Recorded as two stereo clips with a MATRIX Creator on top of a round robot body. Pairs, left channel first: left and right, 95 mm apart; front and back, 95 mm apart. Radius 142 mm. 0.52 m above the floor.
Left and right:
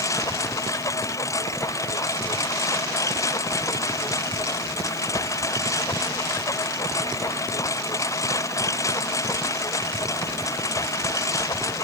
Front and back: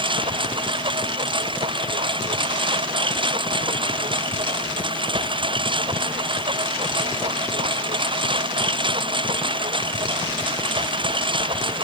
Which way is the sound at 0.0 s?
150° left.